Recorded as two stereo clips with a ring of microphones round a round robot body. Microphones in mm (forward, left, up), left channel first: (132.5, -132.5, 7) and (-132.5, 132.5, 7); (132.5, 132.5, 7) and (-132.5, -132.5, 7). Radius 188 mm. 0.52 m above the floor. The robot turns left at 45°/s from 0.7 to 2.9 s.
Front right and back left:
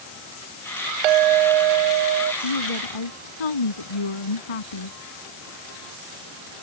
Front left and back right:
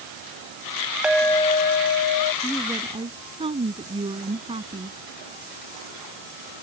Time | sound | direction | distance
1.0 | a clink | 140° left | ?
2.4 | a woman speaking | 40° right | ?